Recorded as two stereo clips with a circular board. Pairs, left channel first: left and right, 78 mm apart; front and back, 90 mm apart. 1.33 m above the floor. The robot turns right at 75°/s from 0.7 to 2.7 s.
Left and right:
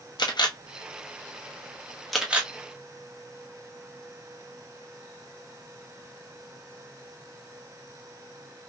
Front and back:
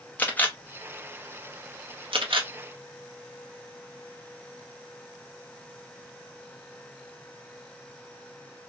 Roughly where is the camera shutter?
Left.